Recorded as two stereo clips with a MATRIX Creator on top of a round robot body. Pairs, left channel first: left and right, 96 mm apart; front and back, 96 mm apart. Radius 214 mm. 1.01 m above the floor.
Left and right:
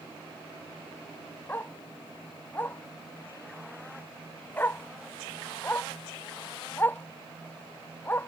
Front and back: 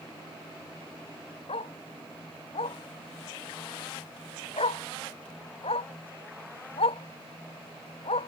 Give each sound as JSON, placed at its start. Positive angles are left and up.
{"t": 1.5, "sound": "a dog barking", "azimuth_deg": 20}